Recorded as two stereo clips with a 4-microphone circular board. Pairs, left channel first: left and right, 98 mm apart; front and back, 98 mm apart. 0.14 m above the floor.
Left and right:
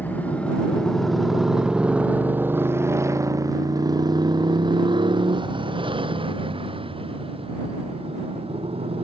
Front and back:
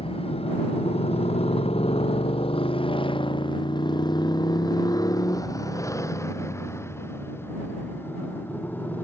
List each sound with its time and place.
0.0 s a motorcycle: 20° left; by 9.1 s 75° right